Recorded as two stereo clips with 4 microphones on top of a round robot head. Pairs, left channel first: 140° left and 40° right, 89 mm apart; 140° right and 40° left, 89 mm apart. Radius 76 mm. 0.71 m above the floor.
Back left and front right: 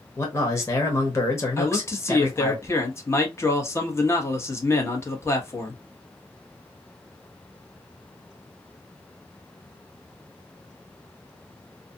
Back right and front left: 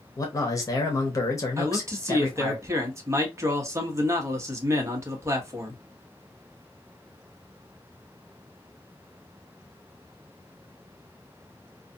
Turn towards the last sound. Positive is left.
turn(degrees=90)